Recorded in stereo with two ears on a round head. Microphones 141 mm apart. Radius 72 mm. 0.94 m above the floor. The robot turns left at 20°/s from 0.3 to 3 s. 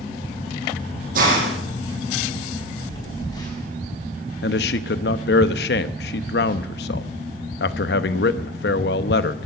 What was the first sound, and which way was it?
A hiss, 60° right (ahead or behind).